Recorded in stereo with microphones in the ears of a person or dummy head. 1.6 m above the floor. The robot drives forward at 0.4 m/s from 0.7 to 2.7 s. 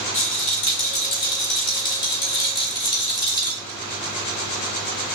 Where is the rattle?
30° left (ahead or behind), 1.8 m; by 3.6 s 20° left (ahead or behind), 2 m.